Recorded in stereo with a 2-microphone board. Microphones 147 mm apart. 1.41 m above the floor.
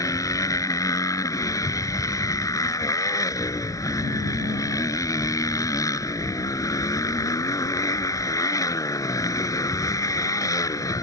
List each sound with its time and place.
0.0 s a motorcycle: 20° left (ahead or behind)